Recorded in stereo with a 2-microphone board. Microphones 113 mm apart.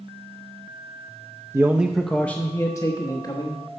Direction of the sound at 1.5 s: 25° right (ahead or behind).